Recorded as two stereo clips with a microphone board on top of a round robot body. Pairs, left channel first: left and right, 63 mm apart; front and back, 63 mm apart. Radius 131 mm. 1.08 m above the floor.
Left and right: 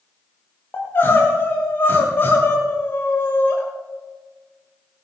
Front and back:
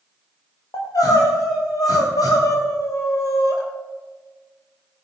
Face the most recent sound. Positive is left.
turn(degrees=30)